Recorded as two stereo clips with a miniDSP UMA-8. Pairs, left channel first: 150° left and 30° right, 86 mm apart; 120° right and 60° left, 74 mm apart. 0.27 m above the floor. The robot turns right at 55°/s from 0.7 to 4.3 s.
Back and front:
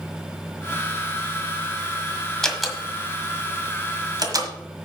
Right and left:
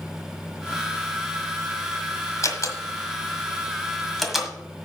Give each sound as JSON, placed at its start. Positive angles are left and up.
{"t": 2.4, "sound": "a door slam", "azimuth_deg": -130, "distance_m": 1.5}